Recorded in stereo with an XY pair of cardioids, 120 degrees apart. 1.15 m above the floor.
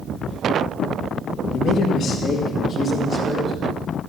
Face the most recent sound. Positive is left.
turn(degrees=30)